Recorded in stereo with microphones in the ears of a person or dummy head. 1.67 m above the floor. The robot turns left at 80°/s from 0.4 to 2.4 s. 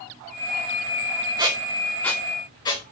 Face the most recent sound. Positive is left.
turn(degrees=15)  # may be behind; listen again after turning